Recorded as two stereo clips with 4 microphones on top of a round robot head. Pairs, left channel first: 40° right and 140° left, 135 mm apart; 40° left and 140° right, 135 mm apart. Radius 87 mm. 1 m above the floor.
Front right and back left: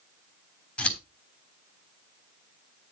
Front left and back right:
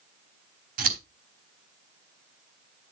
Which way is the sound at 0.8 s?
120° right.